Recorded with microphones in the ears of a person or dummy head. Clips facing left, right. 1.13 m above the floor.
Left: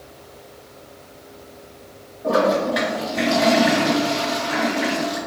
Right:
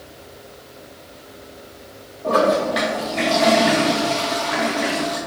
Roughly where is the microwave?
I don't hear a microwave.